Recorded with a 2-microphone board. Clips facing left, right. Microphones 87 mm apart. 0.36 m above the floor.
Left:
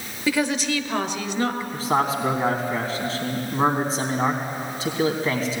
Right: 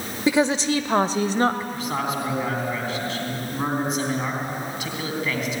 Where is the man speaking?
35° left (ahead or behind), 3.5 m.